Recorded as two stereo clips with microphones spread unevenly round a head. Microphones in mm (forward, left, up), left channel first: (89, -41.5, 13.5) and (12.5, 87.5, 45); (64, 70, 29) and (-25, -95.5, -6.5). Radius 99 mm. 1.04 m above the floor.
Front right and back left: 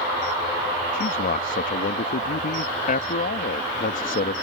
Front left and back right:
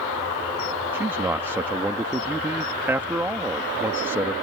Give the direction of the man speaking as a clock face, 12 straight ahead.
1 o'clock.